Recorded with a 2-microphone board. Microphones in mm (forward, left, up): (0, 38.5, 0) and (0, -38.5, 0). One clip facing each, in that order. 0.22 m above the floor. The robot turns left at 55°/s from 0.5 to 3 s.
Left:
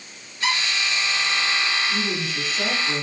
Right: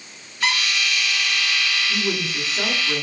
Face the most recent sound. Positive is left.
turn(degrees=-175)